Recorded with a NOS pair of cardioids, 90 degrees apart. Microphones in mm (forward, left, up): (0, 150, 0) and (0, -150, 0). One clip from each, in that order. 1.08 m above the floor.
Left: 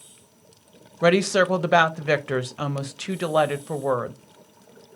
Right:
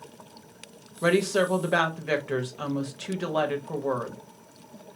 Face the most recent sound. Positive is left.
turn(degrees=40)